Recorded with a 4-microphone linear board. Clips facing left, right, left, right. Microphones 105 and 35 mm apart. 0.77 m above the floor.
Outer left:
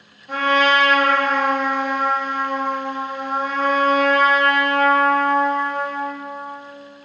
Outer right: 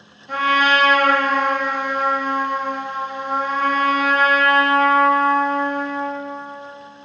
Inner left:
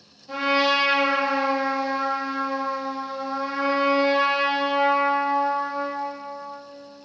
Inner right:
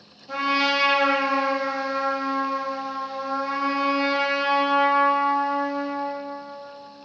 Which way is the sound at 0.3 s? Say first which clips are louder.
Even, inner left 1 dB; 5° left (ahead or behind).